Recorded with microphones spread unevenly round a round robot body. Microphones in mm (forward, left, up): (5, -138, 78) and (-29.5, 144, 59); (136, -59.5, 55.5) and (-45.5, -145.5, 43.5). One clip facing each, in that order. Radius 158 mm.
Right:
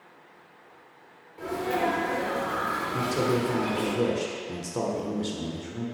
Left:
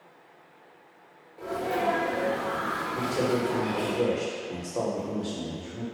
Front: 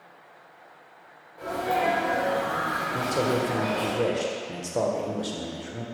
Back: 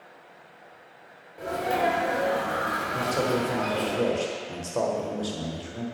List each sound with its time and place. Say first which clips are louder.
1.4 s a sneeze: right 1 dB, even; 125° right, 1.4 m
2.9 s a man speaking: right 1 dB, front 1 dB; 45° right, 1.3 m